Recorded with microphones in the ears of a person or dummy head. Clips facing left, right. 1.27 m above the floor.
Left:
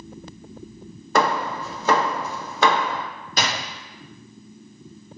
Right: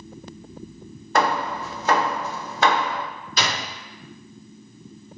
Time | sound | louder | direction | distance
1.1 | hammering | left 1 dB | 85° left | 0.6 m
3.4 | a door slam | left 1 dB | 40° left (ahead or behind) | 1.0 m